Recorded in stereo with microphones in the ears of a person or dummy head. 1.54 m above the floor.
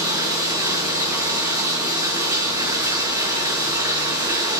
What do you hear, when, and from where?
0.0 s running water: 25° right (ahead or behind), 1.4 m